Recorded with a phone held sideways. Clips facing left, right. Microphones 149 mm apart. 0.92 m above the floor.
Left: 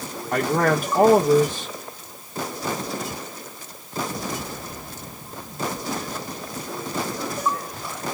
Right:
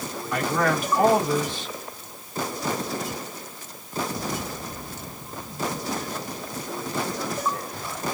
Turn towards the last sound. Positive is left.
turn(degrees=45)  # may be behind; listen again after turning